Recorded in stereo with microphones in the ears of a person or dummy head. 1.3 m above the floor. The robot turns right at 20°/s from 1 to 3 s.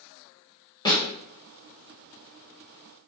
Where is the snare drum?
20° left (ahead or behind), 1.0 m.